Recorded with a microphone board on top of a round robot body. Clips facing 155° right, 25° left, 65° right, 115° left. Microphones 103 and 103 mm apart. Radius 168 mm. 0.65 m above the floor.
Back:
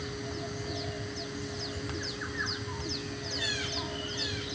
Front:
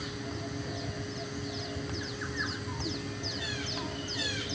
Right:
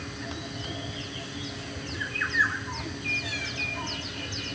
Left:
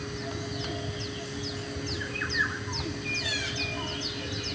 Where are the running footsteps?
No running footsteps in this recording.